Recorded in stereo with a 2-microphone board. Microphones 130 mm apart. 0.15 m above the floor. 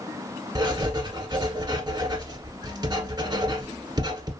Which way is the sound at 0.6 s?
30° right (ahead or behind).